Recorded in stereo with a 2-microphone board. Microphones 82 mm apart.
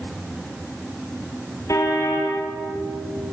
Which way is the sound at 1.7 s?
45° left (ahead or behind).